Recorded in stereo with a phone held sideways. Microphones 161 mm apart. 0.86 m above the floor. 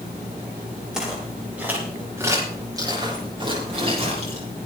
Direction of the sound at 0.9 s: 5° right (ahead or behind).